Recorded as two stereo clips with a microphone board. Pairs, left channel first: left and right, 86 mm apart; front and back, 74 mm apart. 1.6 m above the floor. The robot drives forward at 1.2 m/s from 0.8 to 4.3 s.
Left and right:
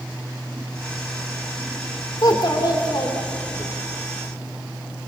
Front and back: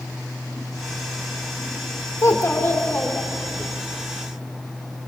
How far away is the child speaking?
About 3.5 m.